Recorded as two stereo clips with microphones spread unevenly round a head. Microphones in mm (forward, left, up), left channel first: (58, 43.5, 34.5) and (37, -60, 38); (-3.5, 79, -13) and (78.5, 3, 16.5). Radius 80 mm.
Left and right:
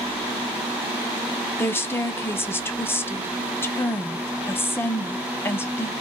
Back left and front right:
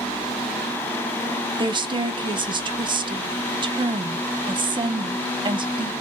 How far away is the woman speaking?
About 0.7 m.